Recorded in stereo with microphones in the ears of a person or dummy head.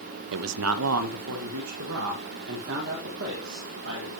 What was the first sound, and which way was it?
A man speaking, 75° right (ahead or behind).